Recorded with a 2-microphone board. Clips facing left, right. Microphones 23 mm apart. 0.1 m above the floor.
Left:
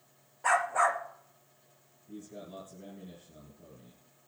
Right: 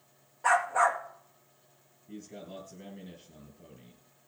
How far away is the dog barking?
About 1.7 m.